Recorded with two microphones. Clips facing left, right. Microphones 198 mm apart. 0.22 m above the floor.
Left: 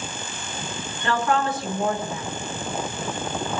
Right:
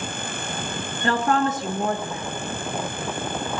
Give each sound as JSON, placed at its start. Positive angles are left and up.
{"t": 1.0, "sound": "a woman speaking", "side_deg": -40, "distance_m": 2.5}